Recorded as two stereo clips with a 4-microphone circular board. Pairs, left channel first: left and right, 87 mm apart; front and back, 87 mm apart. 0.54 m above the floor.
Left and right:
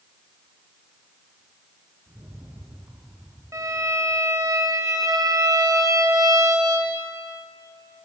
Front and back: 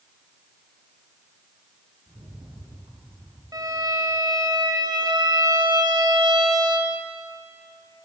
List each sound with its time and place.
2.1 s a rattle: 145° right, 4 m
3.5 s a violin: 140° right, 1.9 m